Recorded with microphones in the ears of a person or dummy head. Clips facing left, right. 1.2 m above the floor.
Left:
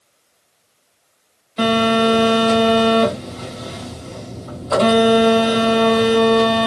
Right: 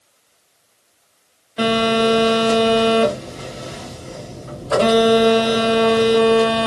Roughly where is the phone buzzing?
Centre.